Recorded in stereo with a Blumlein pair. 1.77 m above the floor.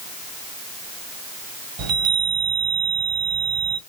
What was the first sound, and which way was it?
A chime, 40° right.